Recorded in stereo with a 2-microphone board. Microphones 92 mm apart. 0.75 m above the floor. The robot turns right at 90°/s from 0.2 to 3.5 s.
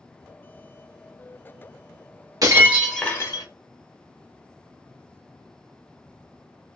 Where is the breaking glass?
40° right, 1.0 m; by 3.5 s 55° left, 1.0 m.